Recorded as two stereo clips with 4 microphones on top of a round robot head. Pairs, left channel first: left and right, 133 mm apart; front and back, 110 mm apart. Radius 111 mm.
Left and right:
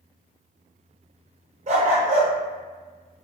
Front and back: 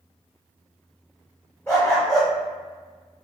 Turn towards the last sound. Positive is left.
turn(degrees=-75)